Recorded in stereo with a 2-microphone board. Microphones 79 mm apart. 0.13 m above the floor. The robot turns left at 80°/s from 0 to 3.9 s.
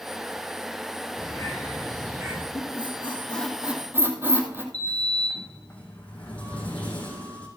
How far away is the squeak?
About 2.5 m.